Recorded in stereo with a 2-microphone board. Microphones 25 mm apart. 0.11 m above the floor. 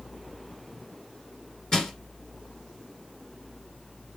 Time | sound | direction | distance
1.7 | crushing | 25° left (ahead or behind) | 1.7 m